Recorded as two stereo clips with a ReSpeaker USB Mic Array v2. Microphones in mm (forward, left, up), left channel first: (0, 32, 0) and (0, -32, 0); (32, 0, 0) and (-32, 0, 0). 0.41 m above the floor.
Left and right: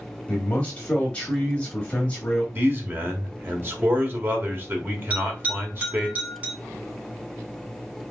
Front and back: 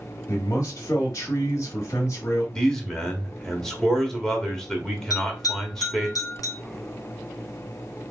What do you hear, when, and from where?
0.3 s a man speaking: 25° left, 1.8 m
2.5 s a man speaking: 80° right, 1.4 m
5.1 s a bell: 20° right, 2.5 m